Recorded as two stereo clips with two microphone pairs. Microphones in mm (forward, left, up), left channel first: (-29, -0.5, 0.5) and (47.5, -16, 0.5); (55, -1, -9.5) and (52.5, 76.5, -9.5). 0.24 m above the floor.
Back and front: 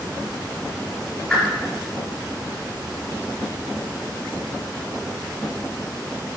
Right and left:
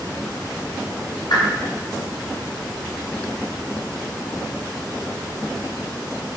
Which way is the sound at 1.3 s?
110° right.